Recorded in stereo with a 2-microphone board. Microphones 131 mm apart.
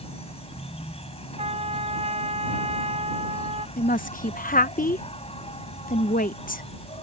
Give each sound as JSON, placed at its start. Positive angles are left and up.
{"t": 0.0, "sound": "an insect", "side_deg": 45}
{"t": 1.4, "sound": "a trumpet", "side_deg": -50}
{"t": 3.8, "sound": "a woman speaking", "side_deg": 85}